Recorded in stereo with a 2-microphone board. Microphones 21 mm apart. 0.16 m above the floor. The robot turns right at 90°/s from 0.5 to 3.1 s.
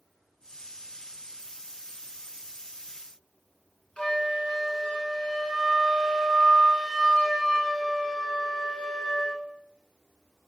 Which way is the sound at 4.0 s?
55° left (ahead or behind).